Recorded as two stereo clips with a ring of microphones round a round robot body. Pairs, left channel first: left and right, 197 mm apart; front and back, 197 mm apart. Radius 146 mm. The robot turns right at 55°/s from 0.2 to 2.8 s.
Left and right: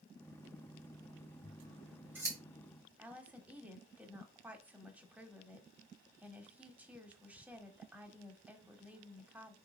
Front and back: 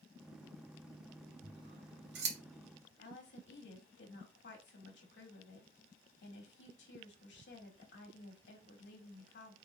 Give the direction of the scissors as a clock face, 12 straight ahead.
7 o'clock.